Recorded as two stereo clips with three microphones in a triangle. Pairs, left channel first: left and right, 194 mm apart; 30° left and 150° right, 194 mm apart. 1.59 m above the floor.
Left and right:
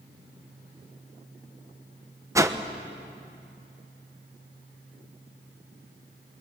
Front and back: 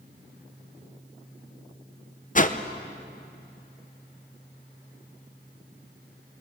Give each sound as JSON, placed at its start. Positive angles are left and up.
{"t": 2.4, "sound": "a whoosh", "azimuth_deg": -15, "distance_m": 0.9}